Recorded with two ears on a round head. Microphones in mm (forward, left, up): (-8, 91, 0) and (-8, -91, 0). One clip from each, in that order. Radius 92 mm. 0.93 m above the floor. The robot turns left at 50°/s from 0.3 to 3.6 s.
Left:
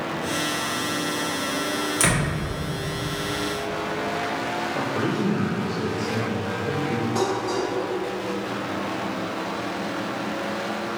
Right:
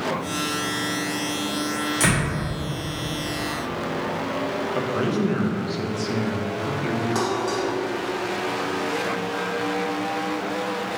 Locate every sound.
2.0 s a door slam: 20° left (ahead or behind), 1.7 m; by 2.3 s 5° left (ahead or behind), 1.7 m
4.8 s a man speaking: 40° right (ahead or behind), 0.8 m
7.2 s dishes clattering: 30° right (ahead or behind), 1.5 m